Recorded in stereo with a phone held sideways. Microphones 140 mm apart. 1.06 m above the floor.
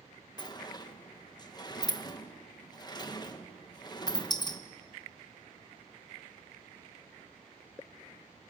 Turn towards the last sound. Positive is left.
turn(degrees=30)  # may be behind; listen again after turning